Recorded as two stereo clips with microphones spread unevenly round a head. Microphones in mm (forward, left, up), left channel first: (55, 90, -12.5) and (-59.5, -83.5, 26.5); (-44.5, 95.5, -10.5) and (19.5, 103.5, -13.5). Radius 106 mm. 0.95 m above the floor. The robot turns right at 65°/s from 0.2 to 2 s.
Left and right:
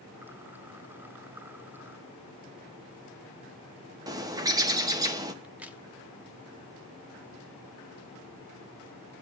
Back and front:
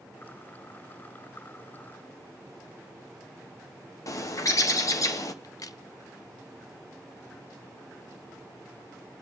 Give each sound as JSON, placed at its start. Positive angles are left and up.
{"t": 4.1, "sound": "a bird", "azimuth_deg": 160, "distance_m": 1.1}
{"t": 5.4, "sound": "a crack", "azimuth_deg": 155, "distance_m": 0.7}